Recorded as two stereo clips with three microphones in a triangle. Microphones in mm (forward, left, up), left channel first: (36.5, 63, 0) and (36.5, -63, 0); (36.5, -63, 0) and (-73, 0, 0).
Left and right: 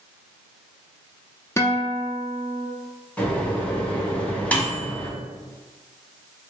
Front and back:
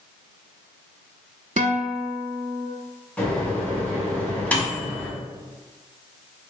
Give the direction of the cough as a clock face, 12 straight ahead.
No cough in this recording.